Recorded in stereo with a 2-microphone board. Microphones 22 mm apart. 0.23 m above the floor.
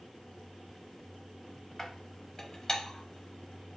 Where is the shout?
No shout in this recording.